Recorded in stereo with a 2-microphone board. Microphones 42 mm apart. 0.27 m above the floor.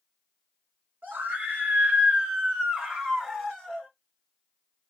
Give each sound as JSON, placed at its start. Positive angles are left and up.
{"t": 1.0, "sound": "a scream", "side_deg": -40, "distance_m": 1.8}